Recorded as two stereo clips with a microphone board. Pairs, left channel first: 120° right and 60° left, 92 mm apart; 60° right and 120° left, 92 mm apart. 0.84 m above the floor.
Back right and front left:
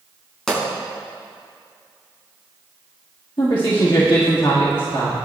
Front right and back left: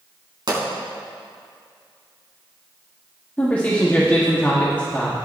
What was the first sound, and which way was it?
A pop, 155° left.